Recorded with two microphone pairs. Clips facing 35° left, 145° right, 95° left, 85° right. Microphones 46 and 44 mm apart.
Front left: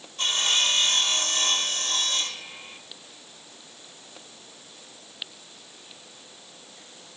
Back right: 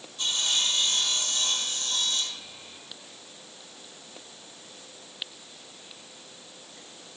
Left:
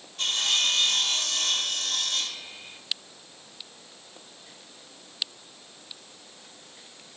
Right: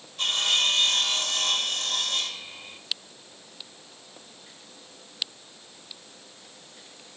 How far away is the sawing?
About 3 m.